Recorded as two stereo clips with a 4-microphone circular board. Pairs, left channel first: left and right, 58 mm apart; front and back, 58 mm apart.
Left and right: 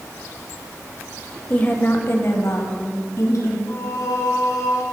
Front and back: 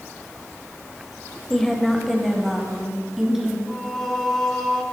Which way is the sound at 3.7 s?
85° left.